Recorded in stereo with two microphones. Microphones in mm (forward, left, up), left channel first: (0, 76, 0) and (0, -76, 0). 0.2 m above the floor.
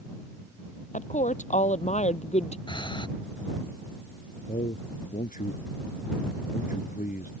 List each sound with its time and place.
0.9 s a woman speaking: 55° left (ahead or behind); by 2.6 s 45° left (ahead or behind)
2.7 s breathing: 30° left (ahead or behind)
4.5 s a man speaking: 65° left (ahead or behind)